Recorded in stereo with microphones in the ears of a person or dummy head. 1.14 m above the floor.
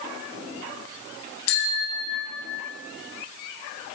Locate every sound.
1.5 s a bicycle bell: 90° left, 6 m